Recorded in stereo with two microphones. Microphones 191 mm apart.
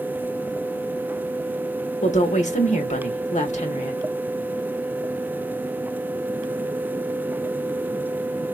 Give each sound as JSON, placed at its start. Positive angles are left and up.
{"t": 2.0, "sound": "a woman speaking", "side_deg": 40, "distance_m": 1.0}